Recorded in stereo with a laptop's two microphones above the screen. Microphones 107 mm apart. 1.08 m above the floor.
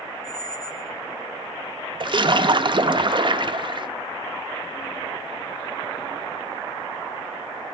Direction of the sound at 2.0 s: 50° right (ahead or behind).